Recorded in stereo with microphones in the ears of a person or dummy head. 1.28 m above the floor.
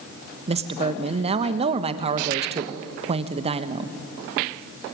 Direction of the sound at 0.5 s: 30° right (ahead or behind).